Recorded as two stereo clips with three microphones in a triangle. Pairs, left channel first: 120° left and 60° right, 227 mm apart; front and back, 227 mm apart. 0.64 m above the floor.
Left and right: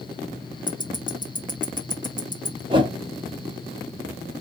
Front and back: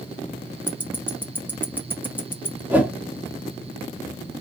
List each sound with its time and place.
0.7 s ticking: 105° left, 1.0 m
2.7 s a whoosh: 105° right, 1.2 m